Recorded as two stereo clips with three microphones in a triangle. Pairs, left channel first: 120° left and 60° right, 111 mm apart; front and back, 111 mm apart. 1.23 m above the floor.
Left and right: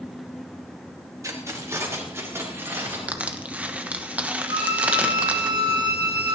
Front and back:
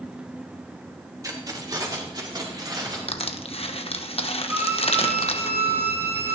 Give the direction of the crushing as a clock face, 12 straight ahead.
11 o'clock.